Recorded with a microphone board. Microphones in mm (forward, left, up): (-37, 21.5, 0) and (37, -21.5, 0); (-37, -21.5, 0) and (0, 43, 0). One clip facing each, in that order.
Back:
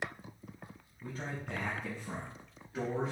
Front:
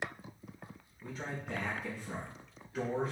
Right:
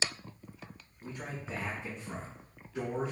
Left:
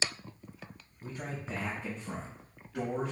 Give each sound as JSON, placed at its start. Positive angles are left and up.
{"t": 1.0, "sound": "a man speaking", "azimuth_deg": 110, "distance_m": 3.0}